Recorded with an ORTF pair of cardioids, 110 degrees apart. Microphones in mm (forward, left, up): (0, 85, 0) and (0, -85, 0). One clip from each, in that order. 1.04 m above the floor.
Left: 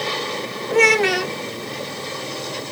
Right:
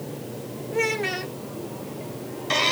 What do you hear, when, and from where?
0.7 s a child speaking: 40° left